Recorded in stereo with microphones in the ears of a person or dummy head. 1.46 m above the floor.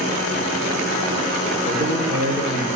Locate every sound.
1.6 s a man speaking: 25° left (ahead or behind), 4 m; by 2.7 s 40° left (ahead or behind), 3.5 m